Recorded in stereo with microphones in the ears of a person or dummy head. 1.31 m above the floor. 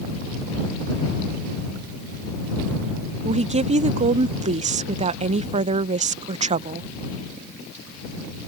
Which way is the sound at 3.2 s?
30° right (ahead or behind).